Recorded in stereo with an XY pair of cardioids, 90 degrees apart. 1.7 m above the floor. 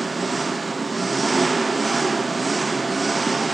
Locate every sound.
0.0 s an engine running: 25° right, 0.7 m